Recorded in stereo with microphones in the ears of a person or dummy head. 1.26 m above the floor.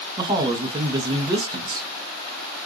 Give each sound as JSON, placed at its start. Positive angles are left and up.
{"t": 0.2, "sound": "a man speaking", "side_deg": -25, "distance_m": 0.9}